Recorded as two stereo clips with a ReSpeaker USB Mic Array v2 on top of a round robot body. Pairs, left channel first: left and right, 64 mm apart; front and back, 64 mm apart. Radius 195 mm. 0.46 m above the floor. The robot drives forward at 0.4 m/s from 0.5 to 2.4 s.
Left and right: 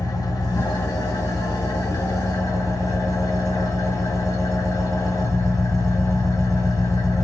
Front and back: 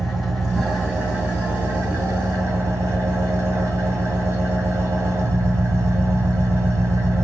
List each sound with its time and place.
0.0 s an engine running: 90° left, 0.9 m; by 7.2 s 130° left, 1.2 m